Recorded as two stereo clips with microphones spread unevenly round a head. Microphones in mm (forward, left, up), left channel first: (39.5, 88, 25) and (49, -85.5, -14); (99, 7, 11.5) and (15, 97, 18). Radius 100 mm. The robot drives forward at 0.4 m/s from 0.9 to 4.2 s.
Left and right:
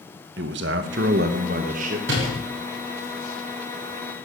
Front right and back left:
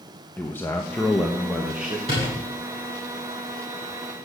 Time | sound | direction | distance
0.4 | a man speaking | 130° right | 0.9 m
2.1 | a door slam | 165° right | 7.5 m